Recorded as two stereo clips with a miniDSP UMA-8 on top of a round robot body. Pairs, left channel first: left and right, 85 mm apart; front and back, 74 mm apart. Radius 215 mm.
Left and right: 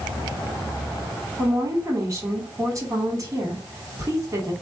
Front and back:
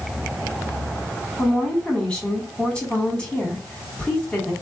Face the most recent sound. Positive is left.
turn(degrees=-70)